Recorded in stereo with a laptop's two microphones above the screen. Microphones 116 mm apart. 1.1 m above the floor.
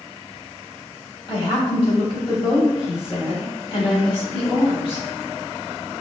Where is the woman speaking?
45° left (ahead or behind), 1.4 m.